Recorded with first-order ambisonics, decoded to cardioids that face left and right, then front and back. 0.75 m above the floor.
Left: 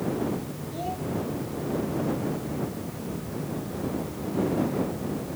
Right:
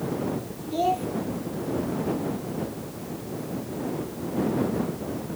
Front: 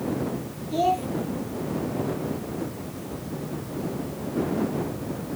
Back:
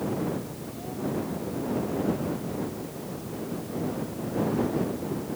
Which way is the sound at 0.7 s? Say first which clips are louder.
Right 9 dB, front 16 dB; 30° right.